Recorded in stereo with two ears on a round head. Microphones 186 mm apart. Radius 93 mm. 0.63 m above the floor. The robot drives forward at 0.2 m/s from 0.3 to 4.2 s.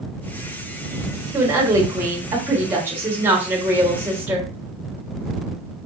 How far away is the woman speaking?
About 0.9 m.